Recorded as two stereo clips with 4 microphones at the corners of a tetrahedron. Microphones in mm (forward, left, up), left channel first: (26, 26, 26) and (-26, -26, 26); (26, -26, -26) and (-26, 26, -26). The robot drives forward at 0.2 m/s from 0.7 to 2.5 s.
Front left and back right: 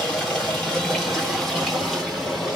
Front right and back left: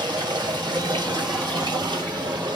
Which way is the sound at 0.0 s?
135° left.